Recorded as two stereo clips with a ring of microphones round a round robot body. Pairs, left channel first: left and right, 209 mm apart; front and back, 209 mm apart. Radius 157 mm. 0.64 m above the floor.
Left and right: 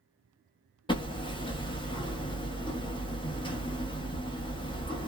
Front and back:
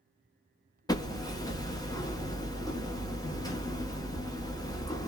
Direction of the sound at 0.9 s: 55° left.